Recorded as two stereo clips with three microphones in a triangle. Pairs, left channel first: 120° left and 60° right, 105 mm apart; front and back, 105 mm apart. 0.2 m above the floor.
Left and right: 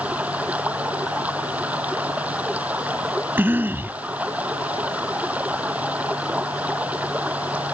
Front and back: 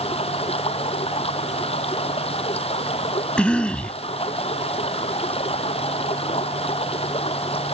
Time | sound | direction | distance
0.0 | running water | 15° left | ?
3.4 | a cough | 60° right | ?